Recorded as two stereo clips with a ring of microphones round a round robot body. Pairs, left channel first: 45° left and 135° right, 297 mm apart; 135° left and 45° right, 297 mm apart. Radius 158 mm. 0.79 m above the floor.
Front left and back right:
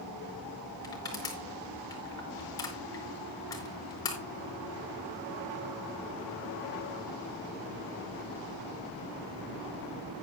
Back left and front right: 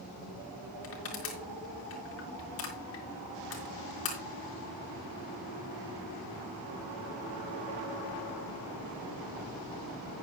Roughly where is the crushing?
Behind left.